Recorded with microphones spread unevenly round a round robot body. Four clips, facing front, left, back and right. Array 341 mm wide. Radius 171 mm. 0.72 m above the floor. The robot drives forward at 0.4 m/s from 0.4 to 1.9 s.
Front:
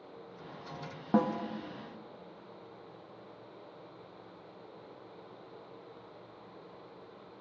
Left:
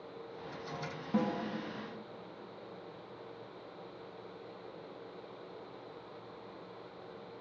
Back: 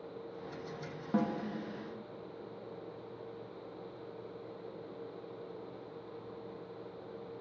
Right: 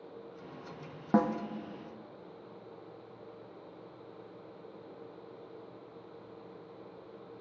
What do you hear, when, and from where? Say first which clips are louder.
1.1 s a snare drum: right 5 dB, front 4 dB; 45° right, 0.5 m; by 1.4 s 60° right, 0.5 m